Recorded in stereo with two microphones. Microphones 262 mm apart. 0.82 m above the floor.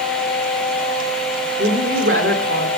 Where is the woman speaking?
55° right (ahead or behind), 1.9 m.